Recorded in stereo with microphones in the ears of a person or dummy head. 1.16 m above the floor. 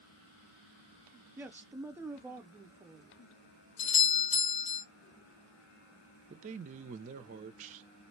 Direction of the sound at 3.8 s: 40° left (ahead or behind).